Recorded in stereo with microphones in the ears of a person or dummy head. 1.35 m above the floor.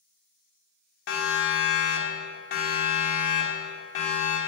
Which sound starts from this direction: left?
A siren, at 1.1 s.